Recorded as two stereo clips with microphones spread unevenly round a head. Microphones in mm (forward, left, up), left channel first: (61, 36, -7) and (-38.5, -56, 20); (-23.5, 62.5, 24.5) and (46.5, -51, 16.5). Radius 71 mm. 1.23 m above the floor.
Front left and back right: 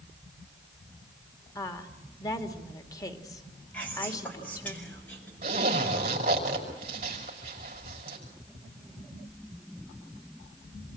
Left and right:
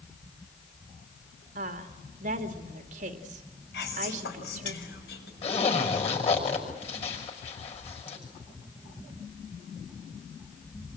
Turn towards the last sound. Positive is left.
turn(degrees=175)